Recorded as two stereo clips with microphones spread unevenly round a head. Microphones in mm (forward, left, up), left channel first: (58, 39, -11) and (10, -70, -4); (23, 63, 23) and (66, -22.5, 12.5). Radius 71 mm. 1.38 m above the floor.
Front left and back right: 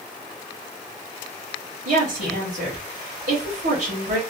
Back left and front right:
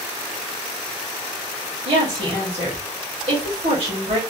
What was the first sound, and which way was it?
A woman speaking, 95° right.